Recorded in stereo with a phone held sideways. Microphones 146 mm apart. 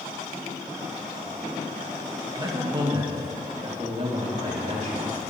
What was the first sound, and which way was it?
A man speaking, 25° right (ahead or behind).